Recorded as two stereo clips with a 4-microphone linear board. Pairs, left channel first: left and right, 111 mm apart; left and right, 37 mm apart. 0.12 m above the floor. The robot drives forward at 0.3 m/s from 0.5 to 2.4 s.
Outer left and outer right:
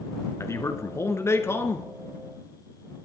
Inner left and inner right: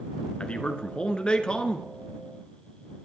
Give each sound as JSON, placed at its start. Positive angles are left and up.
{"t": 0.4, "sound": "a man speaking", "side_deg": 25, "distance_m": 1.2}